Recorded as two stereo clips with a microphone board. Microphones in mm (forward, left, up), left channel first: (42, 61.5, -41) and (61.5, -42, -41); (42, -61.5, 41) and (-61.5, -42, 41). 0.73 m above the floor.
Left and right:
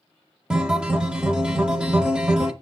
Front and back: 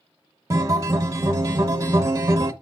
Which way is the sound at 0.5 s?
155° right.